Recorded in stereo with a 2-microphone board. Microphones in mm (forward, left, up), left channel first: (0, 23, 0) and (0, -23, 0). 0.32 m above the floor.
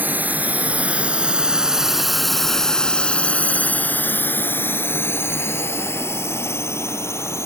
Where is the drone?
40° right (ahead or behind); by 7.5 s 75° left (ahead or behind).